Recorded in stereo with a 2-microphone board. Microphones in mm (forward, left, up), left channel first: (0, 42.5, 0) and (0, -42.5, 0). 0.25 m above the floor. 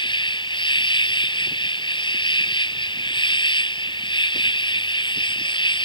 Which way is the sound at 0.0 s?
70° left (ahead or behind).